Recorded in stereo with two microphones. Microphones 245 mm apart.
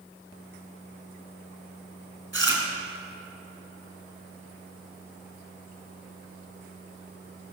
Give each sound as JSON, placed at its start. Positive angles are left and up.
{"t": 2.3, "sound": "chewing", "side_deg": -55, "distance_m": 3.5}